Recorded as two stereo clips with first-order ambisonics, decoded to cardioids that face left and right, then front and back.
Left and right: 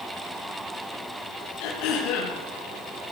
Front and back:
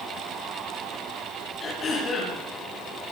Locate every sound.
1.6 s throat clearing: 65° left, 9 m